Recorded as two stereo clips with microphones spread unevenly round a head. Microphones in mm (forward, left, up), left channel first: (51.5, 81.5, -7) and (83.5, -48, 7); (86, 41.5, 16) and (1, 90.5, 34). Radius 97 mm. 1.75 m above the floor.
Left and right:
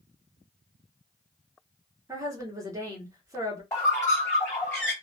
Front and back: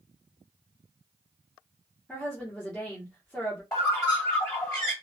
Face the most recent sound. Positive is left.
turn(degrees=40)